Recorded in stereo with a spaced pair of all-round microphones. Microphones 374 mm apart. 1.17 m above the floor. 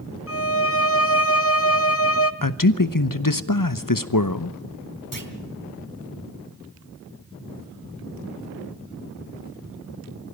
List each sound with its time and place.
0.3 s a violin: 40° left (ahead or behind), 1.0 m
2.4 s a man speaking: 60° left (ahead or behind), 1.0 m
5.1 s a clunk: 60° right (ahead or behind), 2.0 m